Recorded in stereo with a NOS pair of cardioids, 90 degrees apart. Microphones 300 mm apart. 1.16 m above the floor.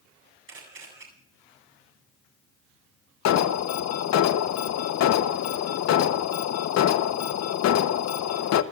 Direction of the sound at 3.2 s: 60° left.